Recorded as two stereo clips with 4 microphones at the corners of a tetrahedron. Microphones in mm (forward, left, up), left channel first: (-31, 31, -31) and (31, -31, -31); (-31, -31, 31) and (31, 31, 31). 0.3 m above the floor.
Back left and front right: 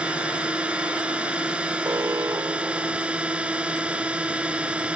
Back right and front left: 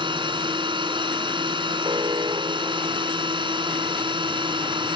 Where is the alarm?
5° left.